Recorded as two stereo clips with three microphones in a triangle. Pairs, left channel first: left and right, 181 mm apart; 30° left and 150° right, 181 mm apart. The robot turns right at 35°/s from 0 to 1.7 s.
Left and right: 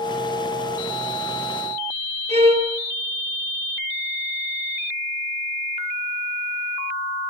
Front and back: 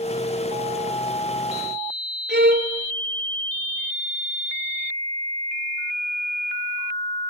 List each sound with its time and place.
2.3 s a violin: 145° right, 2 m